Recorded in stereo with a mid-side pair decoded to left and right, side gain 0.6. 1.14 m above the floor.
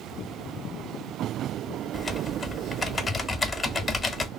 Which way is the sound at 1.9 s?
30° left.